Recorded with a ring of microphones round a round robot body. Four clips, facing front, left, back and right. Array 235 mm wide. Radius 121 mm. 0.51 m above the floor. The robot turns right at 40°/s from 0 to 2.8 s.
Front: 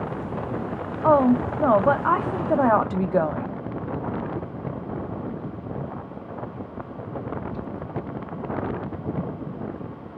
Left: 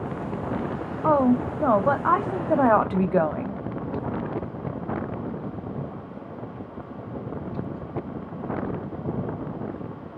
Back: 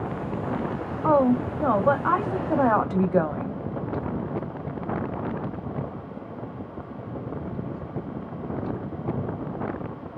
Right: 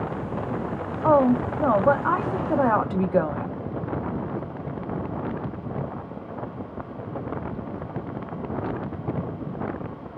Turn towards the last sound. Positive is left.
turn(degrees=60)